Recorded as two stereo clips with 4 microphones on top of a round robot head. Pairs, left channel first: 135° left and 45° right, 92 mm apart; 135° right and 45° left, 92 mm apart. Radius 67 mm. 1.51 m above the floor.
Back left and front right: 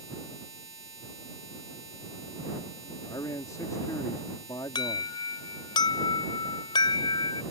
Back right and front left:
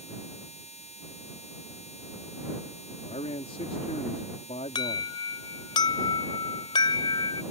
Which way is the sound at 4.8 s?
Straight behind.